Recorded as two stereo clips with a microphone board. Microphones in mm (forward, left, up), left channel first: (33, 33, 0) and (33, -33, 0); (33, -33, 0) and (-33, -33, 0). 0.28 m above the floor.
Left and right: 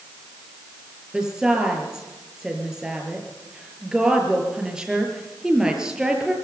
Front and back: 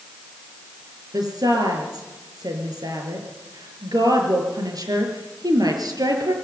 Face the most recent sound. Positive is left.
turn(degrees=-170)